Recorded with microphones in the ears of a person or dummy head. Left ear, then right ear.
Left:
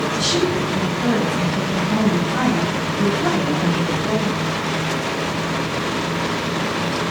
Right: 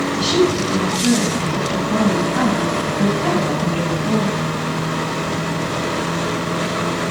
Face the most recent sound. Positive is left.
turn(degrees=75)  # may be behind; listen again after turning